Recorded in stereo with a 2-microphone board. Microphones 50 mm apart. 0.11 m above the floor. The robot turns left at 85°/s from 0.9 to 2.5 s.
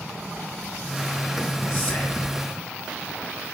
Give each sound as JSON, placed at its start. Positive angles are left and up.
{"t": 1.7, "sound": "whispering", "azimuth_deg": 105, "distance_m": 1.4}